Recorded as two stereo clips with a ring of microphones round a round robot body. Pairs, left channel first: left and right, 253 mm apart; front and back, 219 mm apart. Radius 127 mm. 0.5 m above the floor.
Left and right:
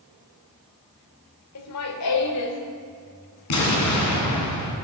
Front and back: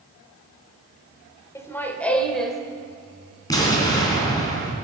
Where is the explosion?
75° left, 3 m.